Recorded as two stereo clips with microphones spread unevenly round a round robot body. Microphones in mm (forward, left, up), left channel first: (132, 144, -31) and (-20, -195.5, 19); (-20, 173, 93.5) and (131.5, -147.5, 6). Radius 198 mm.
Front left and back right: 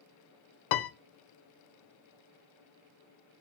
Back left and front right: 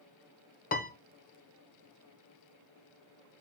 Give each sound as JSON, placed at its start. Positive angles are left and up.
{"t": 0.7, "sound": "a piano", "azimuth_deg": 45, "distance_m": 0.6}